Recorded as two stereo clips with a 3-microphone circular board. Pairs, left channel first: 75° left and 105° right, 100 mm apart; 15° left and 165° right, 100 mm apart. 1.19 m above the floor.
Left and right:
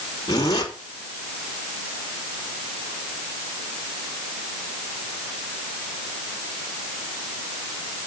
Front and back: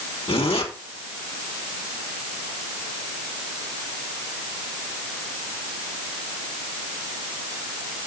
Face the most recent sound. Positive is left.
turn(degrees=25)